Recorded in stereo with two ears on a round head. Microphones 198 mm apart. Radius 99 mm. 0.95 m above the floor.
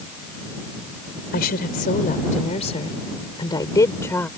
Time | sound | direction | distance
1.3 | a woman speaking | 45° left (ahead or behind) | ?